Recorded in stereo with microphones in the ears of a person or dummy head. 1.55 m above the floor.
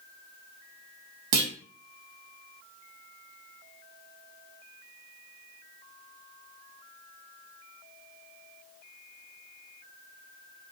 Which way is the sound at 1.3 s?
55° right (ahead or behind).